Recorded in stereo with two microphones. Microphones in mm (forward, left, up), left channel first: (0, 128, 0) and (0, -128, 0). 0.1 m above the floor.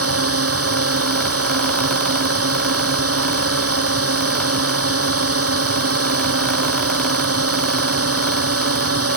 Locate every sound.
0.0 s a drone: 65° right (ahead or behind)